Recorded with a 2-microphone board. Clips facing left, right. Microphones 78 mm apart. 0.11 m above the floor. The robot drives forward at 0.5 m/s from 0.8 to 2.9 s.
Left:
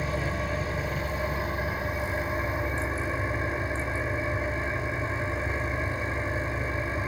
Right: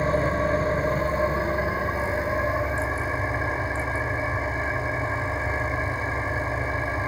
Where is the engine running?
40° right (ahead or behind), 1.1 m; by 7.1 s 20° right (ahead or behind), 2.0 m.